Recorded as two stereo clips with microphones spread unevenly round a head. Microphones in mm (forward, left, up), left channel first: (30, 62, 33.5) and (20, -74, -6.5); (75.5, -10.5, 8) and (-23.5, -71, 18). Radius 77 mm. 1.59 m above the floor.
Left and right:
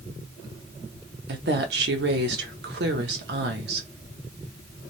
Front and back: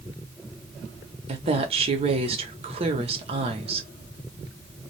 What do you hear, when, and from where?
1.3 s a woman speaking: 125° right, 0.9 m